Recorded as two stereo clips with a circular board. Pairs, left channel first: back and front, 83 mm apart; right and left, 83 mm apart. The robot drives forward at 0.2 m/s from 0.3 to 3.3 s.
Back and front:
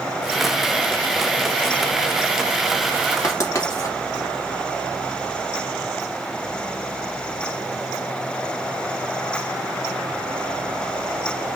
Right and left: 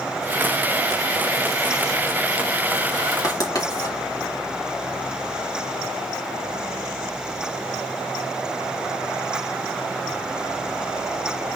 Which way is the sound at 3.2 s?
130° right.